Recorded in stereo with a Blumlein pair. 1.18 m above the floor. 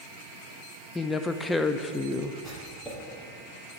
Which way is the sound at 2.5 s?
10° left.